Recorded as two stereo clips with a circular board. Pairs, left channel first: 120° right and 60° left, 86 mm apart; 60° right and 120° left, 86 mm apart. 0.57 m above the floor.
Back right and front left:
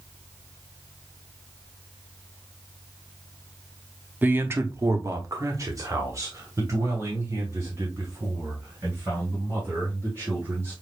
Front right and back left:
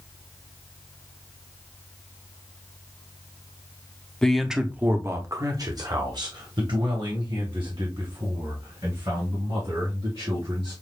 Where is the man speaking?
15° left, 0.7 m; by 10.7 s 120° left, 4 m.